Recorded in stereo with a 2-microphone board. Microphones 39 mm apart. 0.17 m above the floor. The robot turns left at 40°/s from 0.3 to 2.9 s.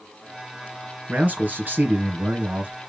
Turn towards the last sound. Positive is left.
turn(degrees=-125)